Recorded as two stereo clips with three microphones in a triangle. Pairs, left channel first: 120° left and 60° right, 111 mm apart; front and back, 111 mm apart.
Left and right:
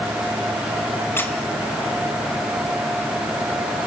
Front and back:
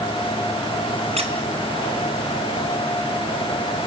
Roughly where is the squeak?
Behind.